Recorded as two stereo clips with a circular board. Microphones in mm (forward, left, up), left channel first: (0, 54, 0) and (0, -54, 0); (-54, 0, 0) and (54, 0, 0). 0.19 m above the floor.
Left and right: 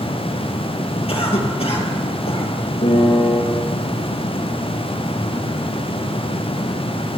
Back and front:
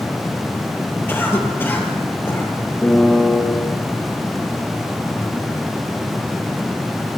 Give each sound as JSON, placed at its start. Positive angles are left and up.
{"t": 1.1, "sound": "a cough", "azimuth_deg": 110, "distance_m": 3.5}
{"t": 2.8, "sound": "a piano", "azimuth_deg": 100, "distance_m": 5.5}